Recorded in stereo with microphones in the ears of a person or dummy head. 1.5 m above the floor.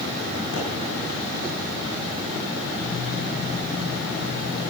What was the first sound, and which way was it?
A pop, 45° left (ahead or behind).